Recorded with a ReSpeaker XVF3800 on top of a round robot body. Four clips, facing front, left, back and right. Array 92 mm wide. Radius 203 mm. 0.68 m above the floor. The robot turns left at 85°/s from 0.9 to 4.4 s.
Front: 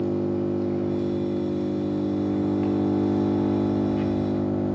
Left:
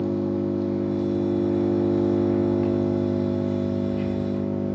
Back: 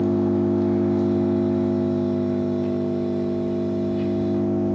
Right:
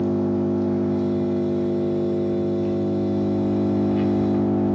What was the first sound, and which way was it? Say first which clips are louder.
An engine running: right 3 dB, back 4 dB; 170° right.